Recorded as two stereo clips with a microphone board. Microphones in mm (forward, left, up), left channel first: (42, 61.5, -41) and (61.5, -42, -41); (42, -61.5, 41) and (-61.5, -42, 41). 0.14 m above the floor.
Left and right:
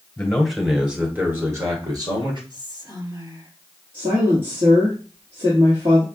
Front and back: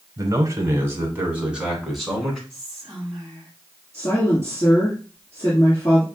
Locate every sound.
0.2 s a man speaking: 175° left, 1.3 m; by 2.4 s 95° right, 1.7 m
2.5 s whispering: 95° right, 2.5 m
3.9 s a woman speaking: 65° right, 1.9 m